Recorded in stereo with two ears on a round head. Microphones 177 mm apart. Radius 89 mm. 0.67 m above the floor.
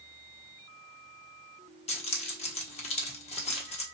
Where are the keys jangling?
30° left (ahead or behind), 0.9 m.